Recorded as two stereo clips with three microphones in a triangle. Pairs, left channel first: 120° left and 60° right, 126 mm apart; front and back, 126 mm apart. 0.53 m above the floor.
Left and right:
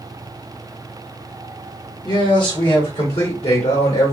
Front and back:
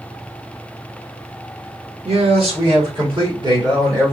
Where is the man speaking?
165° left, 1.7 m; by 4.1 s 130° left, 2.0 m.